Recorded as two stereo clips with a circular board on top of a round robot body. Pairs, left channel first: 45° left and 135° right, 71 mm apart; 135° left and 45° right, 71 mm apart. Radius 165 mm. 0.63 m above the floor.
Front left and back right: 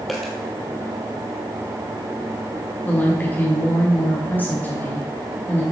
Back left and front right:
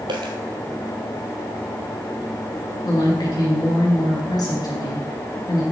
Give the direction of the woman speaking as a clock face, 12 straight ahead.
8 o'clock.